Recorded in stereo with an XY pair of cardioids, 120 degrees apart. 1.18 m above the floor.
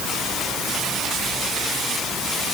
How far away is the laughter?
I don't hear laughter.